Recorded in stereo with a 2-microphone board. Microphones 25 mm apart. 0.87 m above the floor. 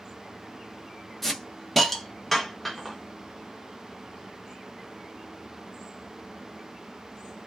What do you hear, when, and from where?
1.2 s a hiss: 10° left (ahead or behind), 0.7 m